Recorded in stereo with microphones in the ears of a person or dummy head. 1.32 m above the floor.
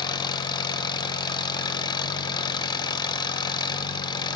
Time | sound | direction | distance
0.0 | an engine running | 25° left (ahead or behind) | 0.8 m